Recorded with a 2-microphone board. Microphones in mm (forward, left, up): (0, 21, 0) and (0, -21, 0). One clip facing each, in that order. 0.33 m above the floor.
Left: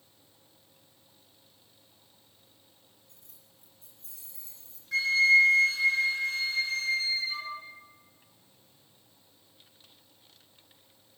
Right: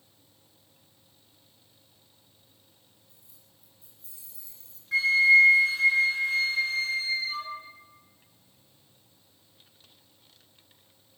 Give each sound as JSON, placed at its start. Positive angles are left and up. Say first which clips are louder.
{"t": 3.1, "sound": "keys jangling", "louder": "left 1 dB", "side_deg": 75, "distance_m": 2.5}
{"t": 4.9, "sound": "a flute", "louder": "right 3 dB", "side_deg": -15, "distance_m": 2.5}